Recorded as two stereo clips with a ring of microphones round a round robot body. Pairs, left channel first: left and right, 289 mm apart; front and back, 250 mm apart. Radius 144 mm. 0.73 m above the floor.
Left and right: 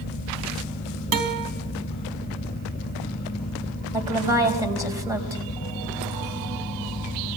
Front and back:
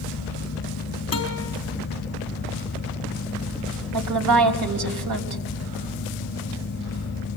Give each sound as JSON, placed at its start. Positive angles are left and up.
{"t": 1.1, "sound": "a guitar", "azimuth_deg": -75, "distance_m": 3.5}
{"t": 3.9, "sound": "a woman speaking", "azimuth_deg": -170, "distance_m": 4.0}